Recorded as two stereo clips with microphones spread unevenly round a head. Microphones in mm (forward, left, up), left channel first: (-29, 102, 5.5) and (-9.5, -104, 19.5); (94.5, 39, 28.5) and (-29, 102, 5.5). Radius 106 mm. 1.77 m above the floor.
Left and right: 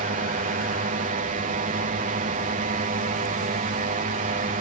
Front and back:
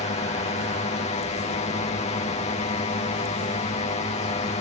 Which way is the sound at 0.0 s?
50° right.